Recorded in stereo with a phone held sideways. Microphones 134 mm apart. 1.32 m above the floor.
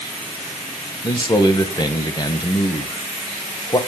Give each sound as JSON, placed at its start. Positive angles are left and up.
{"t": 1.0, "sound": "a man speaking", "side_deg": 30, "distance_m": 1.3}